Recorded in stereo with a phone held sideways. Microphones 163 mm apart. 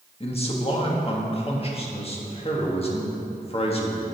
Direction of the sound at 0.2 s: 35° left (ahead or behind).